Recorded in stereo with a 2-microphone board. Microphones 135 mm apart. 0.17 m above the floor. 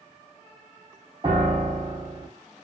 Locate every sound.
1.2 s a piano: 35° right (ahead or behind), 1.1 m